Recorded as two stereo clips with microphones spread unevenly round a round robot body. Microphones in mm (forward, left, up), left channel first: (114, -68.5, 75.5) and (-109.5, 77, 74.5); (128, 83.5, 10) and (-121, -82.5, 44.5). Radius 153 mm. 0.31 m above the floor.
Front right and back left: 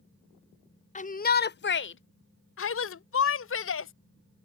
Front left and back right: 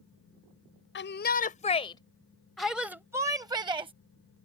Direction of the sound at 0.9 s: 20° left.